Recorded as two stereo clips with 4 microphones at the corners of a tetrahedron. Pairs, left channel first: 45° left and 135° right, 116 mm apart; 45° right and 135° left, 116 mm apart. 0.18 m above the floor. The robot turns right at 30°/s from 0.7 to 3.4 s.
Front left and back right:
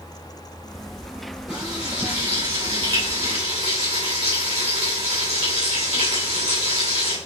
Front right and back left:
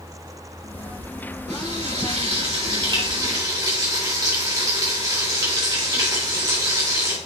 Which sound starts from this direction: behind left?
Frying, at 1.5 s.